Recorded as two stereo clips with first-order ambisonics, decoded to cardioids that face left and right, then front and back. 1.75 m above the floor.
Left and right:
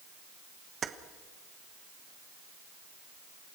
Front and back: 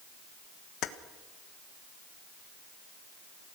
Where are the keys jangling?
30° right, 1.3 m.